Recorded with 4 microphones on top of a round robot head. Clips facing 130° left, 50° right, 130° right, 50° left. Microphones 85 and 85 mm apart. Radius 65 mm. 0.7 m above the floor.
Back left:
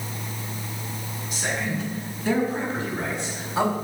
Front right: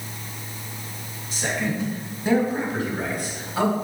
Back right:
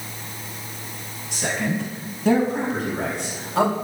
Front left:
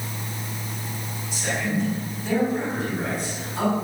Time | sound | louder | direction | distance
1.3 | a man speaking | front right 2 dB, back right 1 dB | 110° right | 6 m